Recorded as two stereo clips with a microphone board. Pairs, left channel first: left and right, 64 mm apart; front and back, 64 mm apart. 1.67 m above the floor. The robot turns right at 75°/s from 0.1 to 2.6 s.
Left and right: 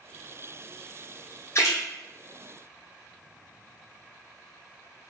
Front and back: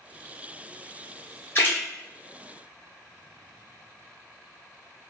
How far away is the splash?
About 0.9 m.